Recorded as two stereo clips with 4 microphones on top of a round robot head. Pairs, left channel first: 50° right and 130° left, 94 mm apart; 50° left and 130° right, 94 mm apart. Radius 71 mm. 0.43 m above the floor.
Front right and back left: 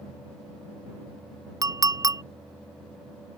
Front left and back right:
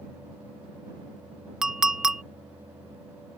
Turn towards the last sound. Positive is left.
turn(degrees=150)